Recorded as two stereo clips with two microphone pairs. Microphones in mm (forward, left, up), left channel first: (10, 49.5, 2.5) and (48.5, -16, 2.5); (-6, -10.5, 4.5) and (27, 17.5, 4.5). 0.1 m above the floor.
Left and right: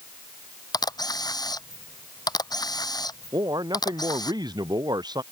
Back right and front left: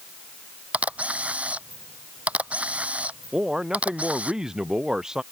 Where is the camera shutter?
95° left.